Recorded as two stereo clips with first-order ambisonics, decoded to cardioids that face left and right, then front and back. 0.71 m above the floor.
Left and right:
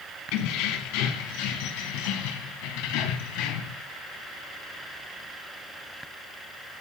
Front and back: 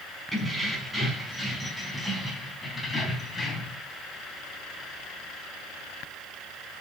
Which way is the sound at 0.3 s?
100° left.